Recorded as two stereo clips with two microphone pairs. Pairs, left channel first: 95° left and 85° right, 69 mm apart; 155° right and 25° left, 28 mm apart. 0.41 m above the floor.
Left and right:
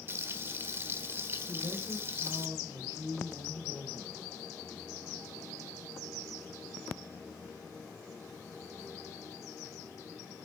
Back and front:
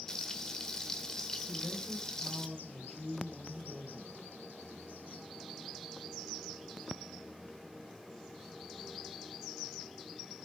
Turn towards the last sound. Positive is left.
turn(degrees=-100)